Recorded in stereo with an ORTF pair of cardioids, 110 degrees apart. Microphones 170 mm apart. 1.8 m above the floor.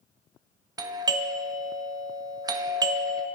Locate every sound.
0.8 s a doorbell: 20° right, 0.7 m